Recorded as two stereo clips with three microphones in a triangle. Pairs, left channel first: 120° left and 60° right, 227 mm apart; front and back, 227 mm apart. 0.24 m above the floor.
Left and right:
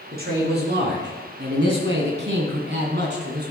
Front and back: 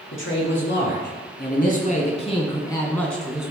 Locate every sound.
0.1 s a man speaking: 20° right, 3 m; by 3.5 s 95° right, 1.9 m